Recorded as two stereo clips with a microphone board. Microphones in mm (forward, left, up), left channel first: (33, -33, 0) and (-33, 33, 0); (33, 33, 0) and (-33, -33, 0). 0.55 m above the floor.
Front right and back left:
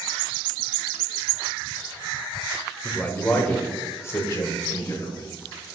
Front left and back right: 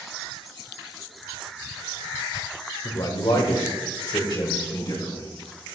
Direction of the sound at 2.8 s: 30° left.